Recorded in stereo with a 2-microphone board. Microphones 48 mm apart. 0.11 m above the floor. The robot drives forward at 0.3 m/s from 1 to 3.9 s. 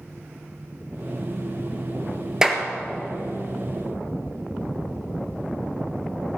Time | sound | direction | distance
2.4 | a clap | 15° right (ahead or behind) | 1.7 m